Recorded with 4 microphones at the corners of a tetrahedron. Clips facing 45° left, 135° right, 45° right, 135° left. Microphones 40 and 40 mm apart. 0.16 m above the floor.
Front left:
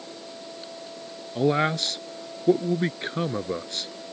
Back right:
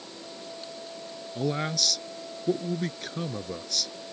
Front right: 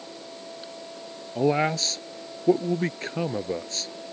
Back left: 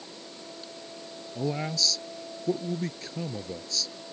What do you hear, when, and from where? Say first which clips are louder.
1.4 s a man speaking: front left 7 dB, front right 8 dB; 5° right